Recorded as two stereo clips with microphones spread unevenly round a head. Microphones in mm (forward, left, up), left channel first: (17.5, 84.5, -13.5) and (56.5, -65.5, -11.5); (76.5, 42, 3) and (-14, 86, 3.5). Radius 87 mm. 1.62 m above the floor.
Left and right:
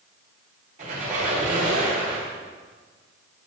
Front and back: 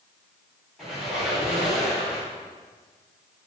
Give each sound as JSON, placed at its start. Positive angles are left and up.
{"t": 0.8, "sound": "a squeak", "azimuth_deg": -120, "distance_m": 3.0}